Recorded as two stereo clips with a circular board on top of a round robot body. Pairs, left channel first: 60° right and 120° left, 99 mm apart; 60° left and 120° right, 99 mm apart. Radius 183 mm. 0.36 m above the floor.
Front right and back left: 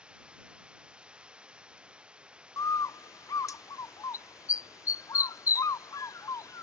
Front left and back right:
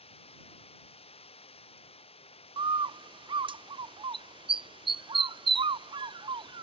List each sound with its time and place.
0.0 s running water: 40° left
2.6 s a bird: 110° right